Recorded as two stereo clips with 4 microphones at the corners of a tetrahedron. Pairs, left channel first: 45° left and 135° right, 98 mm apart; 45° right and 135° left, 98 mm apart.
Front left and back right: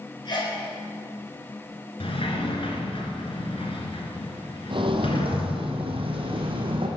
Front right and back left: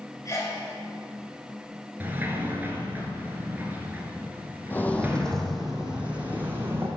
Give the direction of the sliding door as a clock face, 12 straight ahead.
10 o'clock.